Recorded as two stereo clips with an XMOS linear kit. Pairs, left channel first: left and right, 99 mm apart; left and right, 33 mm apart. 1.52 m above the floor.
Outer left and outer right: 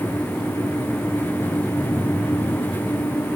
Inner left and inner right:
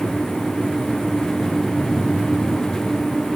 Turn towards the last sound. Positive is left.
No sound to turn to.